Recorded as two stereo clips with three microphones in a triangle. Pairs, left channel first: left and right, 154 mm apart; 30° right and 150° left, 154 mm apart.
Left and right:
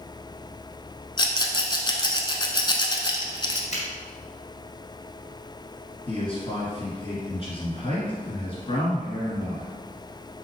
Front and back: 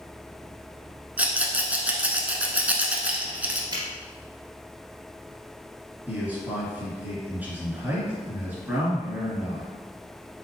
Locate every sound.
1.2 s a rattle: 80° left, 0.7 m
3.7 s a finger snap: 100° left, 1.9 m
6.1 s a man speaking: 75° left, 2 m